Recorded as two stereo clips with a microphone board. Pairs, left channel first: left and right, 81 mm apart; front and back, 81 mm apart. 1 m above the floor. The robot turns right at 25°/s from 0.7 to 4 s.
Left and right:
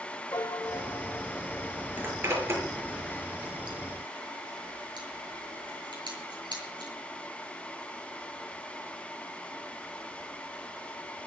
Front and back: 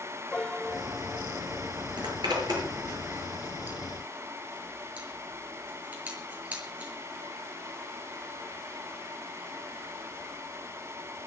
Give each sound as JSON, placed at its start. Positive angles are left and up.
{"t": 0.3, "sound": "a piano", "azimuth_deg": 75, "distance_m": 0.9}
{"t": 2.0, "sound": "a zipper", "azimuth_deg": -160, "distance_m": 7.5}